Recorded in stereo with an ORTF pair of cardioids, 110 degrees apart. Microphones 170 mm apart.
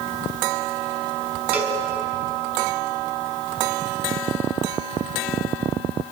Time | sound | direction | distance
1.5 | a cowbell | 10° right | 4 m